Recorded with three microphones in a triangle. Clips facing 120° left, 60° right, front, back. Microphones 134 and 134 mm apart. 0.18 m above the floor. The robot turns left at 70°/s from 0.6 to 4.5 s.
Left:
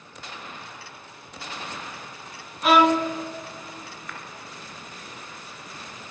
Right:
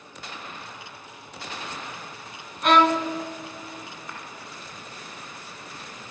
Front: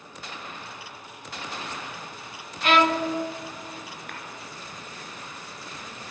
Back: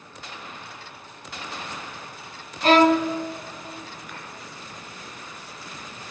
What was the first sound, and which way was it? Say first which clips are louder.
A violin: left 1 dB, back 5 dB; 155° right.